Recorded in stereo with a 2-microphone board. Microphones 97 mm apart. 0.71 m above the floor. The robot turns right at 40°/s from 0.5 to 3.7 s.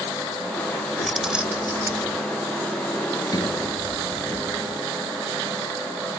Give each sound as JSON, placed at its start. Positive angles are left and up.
{"t": 1.0, "sound": "keys jangling", "azimuth_deg": 175}
{"t": 3.3, "sound": "a sliding door", "side_deg": 45}